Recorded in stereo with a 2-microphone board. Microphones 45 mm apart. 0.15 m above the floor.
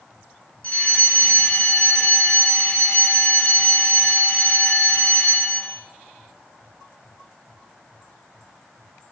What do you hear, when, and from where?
0.6 s a fire alarm: 35° left (ahead or behind), 5 m